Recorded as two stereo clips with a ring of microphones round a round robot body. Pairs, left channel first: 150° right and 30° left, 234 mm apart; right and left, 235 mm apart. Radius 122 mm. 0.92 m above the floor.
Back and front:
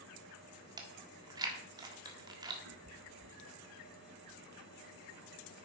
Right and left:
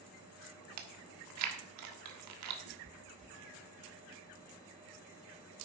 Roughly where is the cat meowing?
Ahead left.